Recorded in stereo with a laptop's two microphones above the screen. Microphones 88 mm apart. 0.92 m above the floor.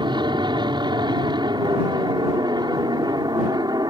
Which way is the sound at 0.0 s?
60° right (ahead or behind).